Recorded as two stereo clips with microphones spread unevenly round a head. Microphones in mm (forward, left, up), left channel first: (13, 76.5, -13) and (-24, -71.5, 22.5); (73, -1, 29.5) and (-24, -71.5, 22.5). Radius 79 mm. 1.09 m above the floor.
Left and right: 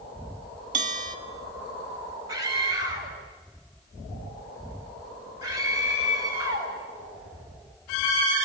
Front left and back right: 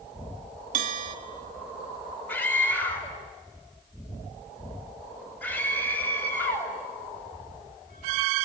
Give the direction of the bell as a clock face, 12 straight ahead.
5 o'clock.